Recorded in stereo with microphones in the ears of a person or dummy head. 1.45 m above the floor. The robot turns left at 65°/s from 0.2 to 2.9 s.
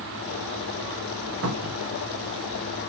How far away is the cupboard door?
About 1.3 m.